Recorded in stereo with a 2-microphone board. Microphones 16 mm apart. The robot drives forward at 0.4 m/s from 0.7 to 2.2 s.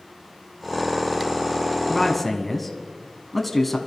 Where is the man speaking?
5° left (ahead or behind), 1.4 m.